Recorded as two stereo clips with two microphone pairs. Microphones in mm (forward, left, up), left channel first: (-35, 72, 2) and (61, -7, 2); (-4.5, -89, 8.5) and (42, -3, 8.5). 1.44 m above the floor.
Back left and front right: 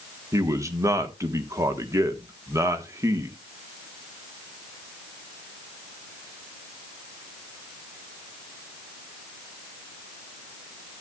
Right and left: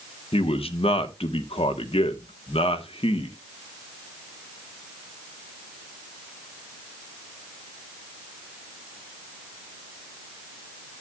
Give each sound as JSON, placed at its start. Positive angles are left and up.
{"t": 0.3, "sound": "a man speaking", "azimuth_deg": -105, "distance_m": 1.2}